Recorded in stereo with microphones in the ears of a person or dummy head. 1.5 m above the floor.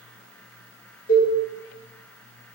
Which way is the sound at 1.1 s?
45° left (ahead or behind).